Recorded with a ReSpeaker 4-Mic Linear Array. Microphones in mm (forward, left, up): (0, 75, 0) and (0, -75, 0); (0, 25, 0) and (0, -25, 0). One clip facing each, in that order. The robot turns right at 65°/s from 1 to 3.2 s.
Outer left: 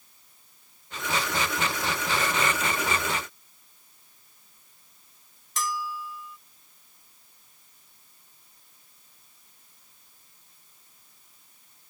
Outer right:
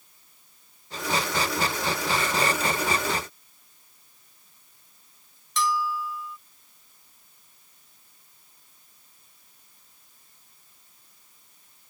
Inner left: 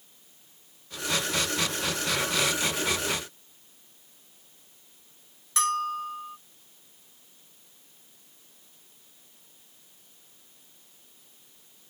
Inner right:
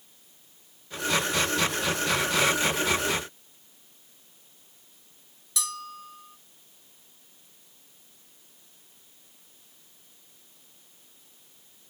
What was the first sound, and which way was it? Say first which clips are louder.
A bell: outer right 6 dB, inner left 10 dB; 50° left (ahead or behind).